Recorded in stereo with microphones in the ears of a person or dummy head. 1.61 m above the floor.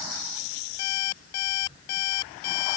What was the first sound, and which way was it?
An alarm clock, 65° left (ahead or behind).